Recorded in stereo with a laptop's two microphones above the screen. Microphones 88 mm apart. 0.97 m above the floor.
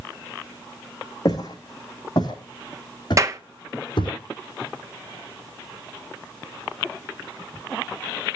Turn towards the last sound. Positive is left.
turn(degrees=-35)  # may be behind; listen again after turning